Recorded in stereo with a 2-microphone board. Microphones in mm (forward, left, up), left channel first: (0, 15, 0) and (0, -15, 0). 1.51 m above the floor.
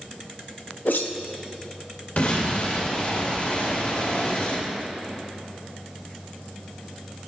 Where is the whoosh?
85° left, 0.6 m.